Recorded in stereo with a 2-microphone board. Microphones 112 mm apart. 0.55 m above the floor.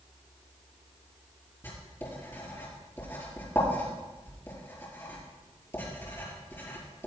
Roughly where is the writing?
Left.